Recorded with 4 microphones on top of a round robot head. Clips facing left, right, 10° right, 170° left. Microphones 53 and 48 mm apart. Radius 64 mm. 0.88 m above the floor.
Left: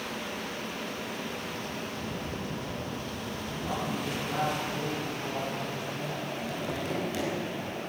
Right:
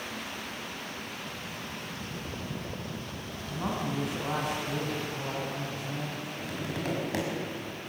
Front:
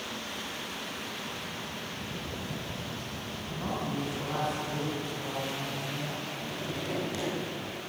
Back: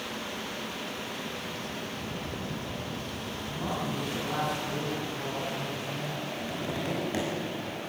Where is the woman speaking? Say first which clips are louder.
Right 2 dB, even; 95° right, 8 m.